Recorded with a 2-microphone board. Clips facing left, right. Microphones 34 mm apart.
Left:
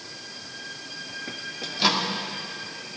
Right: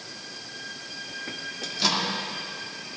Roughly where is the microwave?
Left.